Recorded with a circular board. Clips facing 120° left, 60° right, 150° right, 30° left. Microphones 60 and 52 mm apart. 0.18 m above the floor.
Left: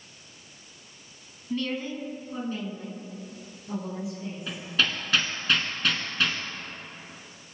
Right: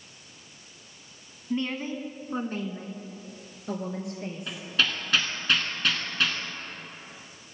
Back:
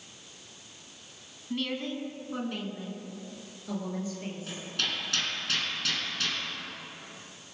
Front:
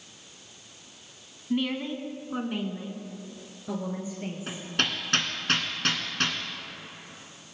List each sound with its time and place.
1.5 s a woman speaking: 20° right, 1.4 m; by 4.6 s 45° right, 4 m
4.5 s hammering: 30° left, 2 m